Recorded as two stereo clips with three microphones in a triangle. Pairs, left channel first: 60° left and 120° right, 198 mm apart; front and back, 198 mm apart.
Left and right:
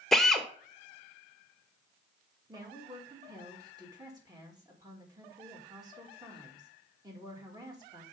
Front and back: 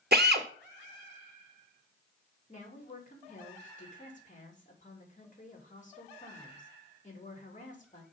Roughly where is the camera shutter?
I don't hear a camera shutter.